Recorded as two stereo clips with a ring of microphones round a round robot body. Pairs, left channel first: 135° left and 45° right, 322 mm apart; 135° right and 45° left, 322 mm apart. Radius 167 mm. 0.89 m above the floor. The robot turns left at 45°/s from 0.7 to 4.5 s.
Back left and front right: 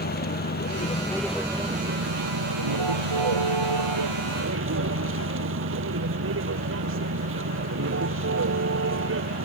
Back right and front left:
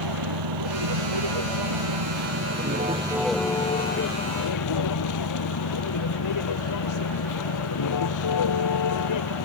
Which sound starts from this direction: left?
A vehicle, at 0.0 s.